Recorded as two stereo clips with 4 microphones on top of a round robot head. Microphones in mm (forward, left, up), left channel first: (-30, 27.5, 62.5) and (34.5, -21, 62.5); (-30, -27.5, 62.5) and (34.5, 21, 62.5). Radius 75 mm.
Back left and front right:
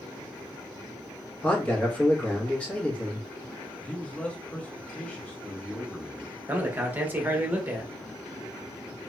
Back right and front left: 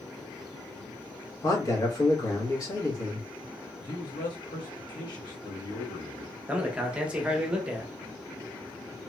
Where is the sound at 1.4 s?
150° right, 1.3 m.